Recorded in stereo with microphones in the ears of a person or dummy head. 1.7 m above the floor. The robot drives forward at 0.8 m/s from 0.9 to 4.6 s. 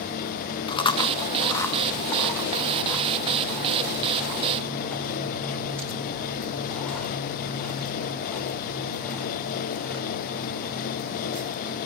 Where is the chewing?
30° left (ahead or behind), 1.1 m; by 10.7 s 5° left (ahead or behind), 4 m.